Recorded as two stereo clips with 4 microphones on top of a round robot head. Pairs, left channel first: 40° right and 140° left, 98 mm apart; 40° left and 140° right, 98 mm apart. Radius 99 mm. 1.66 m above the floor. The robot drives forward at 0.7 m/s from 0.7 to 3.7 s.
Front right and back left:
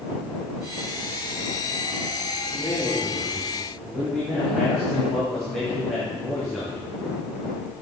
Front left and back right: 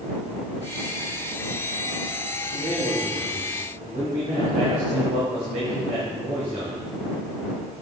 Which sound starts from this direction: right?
A man speaking, at 2.5 s.